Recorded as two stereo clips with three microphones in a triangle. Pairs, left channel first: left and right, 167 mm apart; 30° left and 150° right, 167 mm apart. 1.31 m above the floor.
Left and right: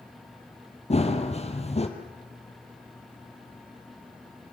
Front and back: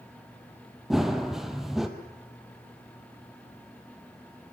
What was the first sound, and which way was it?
Running footsteps, 120° left.